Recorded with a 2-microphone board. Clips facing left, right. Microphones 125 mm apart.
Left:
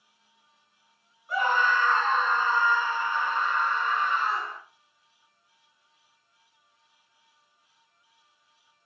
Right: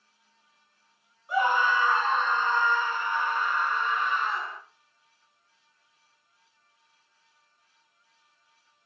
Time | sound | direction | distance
1.3 | a scream | 20° right (ahead or behind) | 1.5 m